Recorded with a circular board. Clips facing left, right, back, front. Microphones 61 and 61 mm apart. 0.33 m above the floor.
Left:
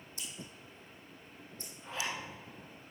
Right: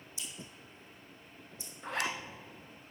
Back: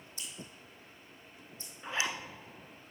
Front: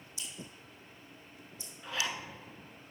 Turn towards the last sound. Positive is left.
turn(degrees=-115)